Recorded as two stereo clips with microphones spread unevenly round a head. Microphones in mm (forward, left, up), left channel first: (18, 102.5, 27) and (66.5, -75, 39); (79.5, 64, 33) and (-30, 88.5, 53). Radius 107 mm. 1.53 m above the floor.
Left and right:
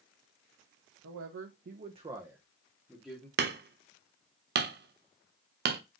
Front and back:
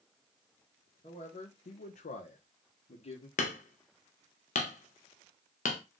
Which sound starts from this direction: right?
A man speaking, at 1.0 s.